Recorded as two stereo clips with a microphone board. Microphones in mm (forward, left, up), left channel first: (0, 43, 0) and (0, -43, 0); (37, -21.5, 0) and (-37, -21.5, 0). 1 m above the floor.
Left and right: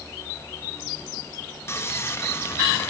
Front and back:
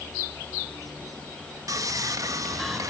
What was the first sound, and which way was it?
Sawing, 145° left.